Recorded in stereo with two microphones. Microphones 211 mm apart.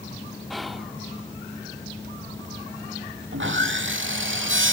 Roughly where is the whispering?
Centre.